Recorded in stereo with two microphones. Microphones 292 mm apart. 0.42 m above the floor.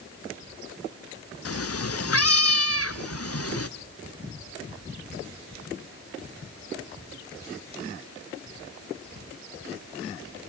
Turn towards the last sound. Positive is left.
turn(degrees=55)  # may be behind; listen again after turning